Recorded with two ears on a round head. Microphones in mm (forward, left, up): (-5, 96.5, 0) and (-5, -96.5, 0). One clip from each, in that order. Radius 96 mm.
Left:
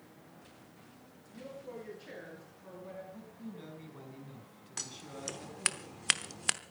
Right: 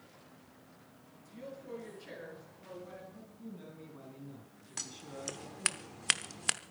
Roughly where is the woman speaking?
Centre.